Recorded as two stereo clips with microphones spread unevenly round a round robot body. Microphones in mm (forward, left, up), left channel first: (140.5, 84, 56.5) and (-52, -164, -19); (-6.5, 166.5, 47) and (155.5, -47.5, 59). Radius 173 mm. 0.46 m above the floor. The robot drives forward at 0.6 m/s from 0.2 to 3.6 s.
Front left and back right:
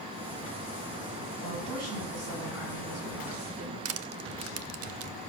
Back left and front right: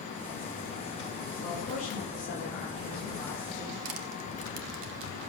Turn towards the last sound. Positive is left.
turn(degrees=-80)